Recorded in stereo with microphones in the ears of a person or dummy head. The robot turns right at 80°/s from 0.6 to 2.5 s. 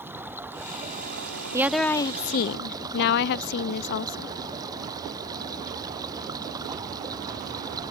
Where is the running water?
170° right; by 7.9 s 20° right.